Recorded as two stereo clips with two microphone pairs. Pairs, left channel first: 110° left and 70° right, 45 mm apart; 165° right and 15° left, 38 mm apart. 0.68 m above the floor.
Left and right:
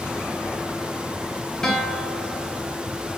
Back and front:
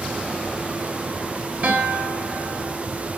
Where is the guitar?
40° left, 0.9 m.